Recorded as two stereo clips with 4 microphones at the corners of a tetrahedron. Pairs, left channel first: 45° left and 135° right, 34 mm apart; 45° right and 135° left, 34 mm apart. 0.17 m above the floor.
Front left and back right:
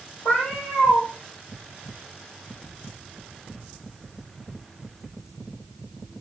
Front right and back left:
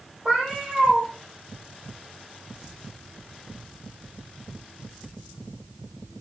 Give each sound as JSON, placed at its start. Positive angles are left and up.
{"t": 0.2, "sound": "a cat meowing", "azimuth_deg": 75, "distance_m": 3.0}